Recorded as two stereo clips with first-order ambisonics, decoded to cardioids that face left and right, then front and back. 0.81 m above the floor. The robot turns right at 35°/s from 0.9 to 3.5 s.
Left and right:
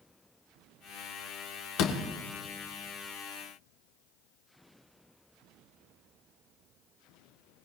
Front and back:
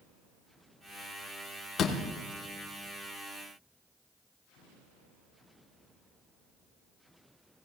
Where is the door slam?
60° left, 1.6 m; by 2.0 s 70° left, 1.6 m.